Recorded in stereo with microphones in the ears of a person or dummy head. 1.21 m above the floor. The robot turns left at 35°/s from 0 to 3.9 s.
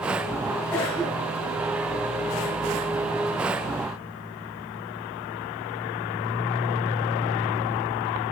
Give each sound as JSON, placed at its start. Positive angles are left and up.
{"t": 0.7, "sound": "a cough", "side_deg": 10, "distance_m": 3.5}